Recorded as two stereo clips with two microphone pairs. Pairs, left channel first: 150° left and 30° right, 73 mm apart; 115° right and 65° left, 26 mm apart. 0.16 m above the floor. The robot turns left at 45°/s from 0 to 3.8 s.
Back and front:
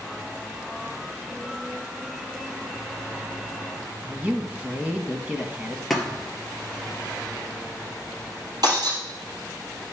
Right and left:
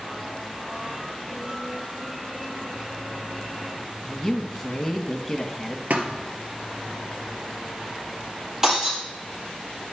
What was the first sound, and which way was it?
A woman speaking, 55° right.